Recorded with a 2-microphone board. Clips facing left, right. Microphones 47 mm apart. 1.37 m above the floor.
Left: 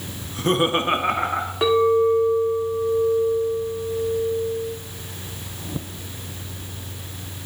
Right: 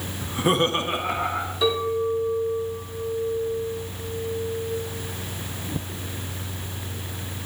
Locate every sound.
0.2 s laughter: 40° right (ahead or behind), 0.7 m; by 1.5 s 60° left (ahead or behind), 1.4 m
1.6 s a clink: 50° left (ahead or behind), 1.8 m